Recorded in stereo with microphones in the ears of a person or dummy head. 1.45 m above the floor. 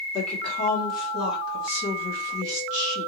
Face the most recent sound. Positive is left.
turn(degrees=55)  # may be behind; listen again after turning